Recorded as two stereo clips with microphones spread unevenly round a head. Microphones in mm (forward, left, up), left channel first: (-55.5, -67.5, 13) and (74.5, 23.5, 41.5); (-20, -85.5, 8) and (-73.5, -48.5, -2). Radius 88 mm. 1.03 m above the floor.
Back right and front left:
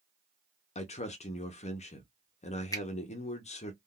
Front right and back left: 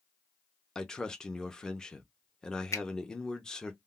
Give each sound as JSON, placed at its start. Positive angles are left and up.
{"t": 0.8, "sound": "a man speaking", "azimuth_deg": -120, "distance_m": 0.7}
{"t": 2.7, "sound": "a finger snap", "azimuth_deg": -75, "distance_m": 1.2}